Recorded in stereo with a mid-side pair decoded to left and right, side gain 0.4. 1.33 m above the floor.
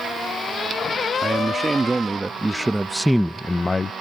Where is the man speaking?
25° right; by 3.9 s 45° left.